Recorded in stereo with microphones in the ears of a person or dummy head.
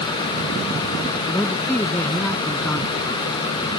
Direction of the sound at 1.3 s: 5° left (ahead or behind).